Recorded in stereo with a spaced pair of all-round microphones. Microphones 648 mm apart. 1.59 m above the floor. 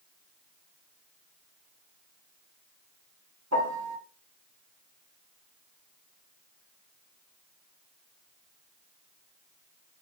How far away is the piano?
About 0.9 m.